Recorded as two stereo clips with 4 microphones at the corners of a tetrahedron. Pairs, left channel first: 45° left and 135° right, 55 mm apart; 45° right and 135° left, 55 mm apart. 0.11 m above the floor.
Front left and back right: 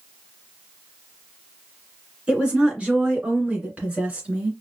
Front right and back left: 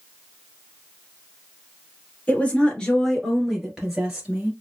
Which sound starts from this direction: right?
A woman speaking, at 2.3 s.